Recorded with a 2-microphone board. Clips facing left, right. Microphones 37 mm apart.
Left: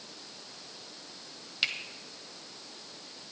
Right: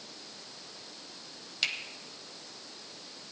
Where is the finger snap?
15° left (ahead or behind), 1.4 m.